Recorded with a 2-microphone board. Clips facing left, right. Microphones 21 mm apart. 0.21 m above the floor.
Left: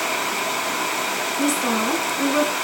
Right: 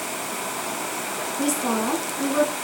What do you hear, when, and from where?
1.4 s a woman speaking: 25° left (ahead or behind), 2.5 m